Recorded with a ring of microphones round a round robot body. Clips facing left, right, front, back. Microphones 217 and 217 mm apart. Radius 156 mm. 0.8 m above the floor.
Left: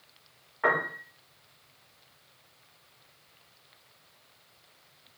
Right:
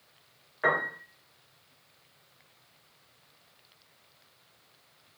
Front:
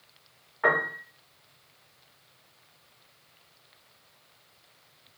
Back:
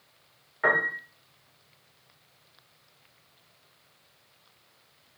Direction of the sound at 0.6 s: 140° right.